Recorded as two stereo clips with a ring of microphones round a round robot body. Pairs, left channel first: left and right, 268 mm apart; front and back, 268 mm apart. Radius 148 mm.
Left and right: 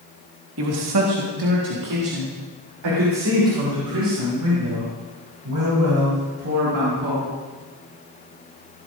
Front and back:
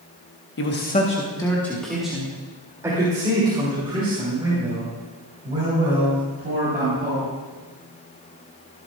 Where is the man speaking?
45° right, 1.4 m; by 7.3 s 115° right, 8.5 m.